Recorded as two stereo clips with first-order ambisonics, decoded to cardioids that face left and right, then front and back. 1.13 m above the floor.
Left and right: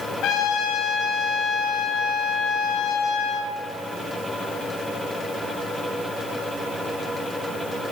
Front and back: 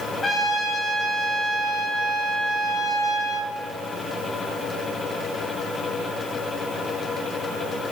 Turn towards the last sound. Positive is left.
turn(degrees=70)